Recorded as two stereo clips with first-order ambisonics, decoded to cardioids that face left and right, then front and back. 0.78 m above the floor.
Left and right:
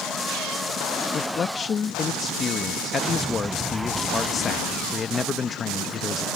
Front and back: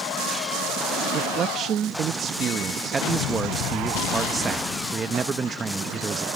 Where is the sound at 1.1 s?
140° left.